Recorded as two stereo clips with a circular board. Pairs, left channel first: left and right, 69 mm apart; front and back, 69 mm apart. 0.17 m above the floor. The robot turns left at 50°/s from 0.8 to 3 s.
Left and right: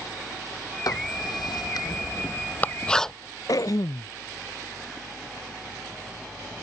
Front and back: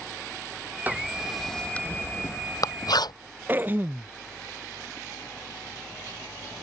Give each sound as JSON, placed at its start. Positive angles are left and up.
{"t": 0.9, "sound": "writing", "azimuth_deg": 115}
{"t": 3.5, "sound": "throat clearing", "azimuth_deg": 120}